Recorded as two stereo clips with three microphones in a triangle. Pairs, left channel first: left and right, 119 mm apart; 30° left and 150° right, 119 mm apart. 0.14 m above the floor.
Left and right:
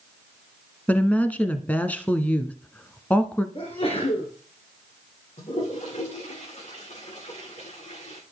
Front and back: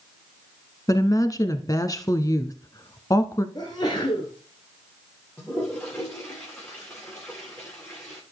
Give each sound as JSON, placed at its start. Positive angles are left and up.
{"t": 0.9, "sound": "a woman speaking", "azimuth_deg": 25, "distance_m": 1.2}
{"t": 3.5, "sound": "a sneeze", "azimuth_deg": 70, "distance_m": 2.5}
{"t": 5.4, "sound": "a toilet flushing", "azimuth_deg": 110, "distance_m": 7.5}